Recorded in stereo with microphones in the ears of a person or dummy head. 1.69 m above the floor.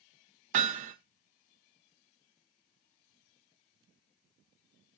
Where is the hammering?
45° right (ahead or behind), 1.2 m.